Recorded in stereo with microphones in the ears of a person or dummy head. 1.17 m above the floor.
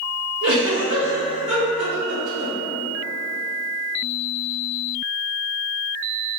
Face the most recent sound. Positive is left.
turn(degrees=-70)  # may be behind; listen again after turning